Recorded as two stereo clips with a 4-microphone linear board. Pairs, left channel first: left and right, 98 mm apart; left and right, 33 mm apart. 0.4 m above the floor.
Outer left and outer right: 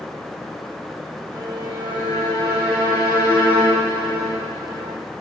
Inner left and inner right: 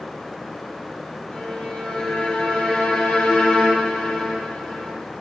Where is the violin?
45° left (ahead or behind), 1.2 m.